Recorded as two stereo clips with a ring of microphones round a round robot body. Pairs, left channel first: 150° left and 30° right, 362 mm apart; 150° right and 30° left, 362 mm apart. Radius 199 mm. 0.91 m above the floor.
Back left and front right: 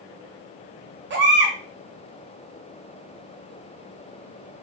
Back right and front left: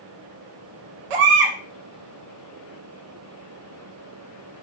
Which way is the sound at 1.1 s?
30° left.